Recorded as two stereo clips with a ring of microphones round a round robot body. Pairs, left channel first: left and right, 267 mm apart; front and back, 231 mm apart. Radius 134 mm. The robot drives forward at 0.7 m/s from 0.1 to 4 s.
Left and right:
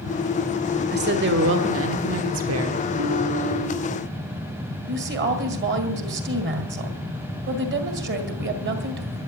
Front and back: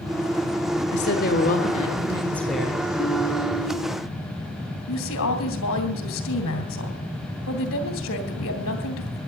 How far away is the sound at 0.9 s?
About 1.8 m.